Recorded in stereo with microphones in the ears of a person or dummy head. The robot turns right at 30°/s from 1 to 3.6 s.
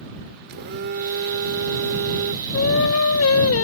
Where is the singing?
65° left; by 3.6 s 100° left.